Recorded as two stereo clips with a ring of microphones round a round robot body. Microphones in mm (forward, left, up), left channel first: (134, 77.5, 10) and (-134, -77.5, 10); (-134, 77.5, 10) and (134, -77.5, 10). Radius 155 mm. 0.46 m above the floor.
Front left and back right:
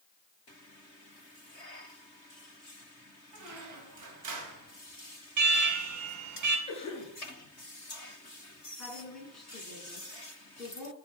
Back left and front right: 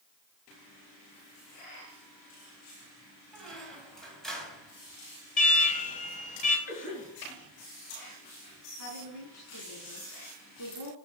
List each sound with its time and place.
3.3 s a squeak: 120° right, 2 m
5.4 s an alarm: 150° right, 1.5 m
6.7 s a cough: 100° left, 6.5 m
8.8 s a woman speaking: 120° left, 4.5 m